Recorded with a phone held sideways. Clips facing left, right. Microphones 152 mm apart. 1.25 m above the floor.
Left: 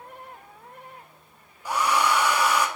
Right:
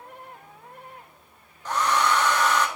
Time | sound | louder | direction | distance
1.6 | a hair dryer | even | 10° left (ahead or behind) | 0.8 m